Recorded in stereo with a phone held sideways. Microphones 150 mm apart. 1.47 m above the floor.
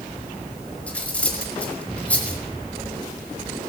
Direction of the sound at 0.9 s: 10° left (ahead or behind).